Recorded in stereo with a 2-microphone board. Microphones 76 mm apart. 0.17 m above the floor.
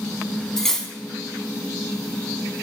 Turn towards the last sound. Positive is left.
turn(degrees=5)  # may be behind; listen again after turning